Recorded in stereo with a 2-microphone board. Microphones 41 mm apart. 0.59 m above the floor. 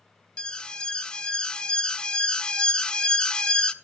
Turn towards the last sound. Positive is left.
turn(degrees=20)  # may be behind; listen again after turning